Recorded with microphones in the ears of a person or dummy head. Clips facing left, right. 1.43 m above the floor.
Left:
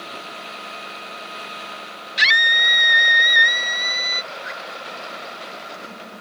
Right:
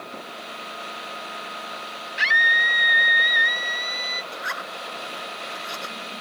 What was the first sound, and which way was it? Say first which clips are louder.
A scream: left 2 dB; 50° left (ahead or behind).